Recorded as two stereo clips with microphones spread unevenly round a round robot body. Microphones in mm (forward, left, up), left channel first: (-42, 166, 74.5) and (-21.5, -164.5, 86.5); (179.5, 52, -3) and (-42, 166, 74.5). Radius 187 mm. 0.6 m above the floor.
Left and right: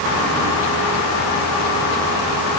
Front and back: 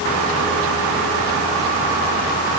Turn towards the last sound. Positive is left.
No sound to turn to.